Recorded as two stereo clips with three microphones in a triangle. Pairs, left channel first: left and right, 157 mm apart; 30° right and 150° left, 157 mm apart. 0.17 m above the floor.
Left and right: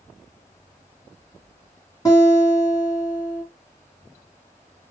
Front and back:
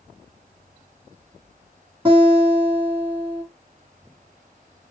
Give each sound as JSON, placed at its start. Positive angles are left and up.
{"t": 2.0, "sound": "a guitar", "azimuth_deg": 130, "distance_m": 1.5}